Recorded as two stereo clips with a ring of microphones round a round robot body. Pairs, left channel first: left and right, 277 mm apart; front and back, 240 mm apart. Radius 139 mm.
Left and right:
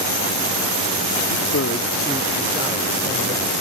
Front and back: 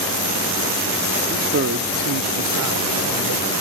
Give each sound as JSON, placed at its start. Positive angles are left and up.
{"t": 1.3, "sound": "a man speaking", "azimuth_deg": 115}